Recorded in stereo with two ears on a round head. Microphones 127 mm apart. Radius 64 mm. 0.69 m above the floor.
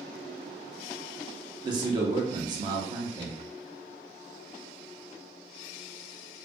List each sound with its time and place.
1.6 s a man speaking: 30° right (ahead or behind), 0.6 m